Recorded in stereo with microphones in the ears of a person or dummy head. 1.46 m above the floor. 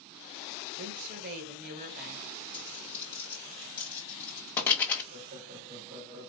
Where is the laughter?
45° right (ahead or behind), 2.5 m.